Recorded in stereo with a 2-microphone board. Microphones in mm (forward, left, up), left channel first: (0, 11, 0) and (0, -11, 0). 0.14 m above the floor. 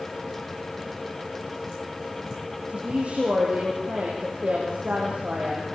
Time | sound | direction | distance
2.7 | a woman speaking | 55° right (ahead or behind) | 5.5 m